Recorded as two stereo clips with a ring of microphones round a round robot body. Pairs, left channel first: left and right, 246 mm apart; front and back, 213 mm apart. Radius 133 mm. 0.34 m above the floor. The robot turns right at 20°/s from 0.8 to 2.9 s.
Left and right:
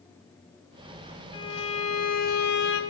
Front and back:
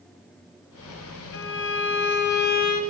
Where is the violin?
20° left, 1.2 m; by 2.8 s 50° left, 1.2 m.